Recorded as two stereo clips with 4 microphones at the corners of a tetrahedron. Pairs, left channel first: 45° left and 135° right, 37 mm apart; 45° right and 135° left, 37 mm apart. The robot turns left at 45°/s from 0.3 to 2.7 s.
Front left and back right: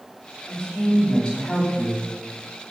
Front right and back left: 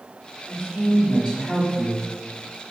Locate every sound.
0.5 s a woman speaking: 135° left, 1.9 m; by 2.1 s 60° left, 1.9 m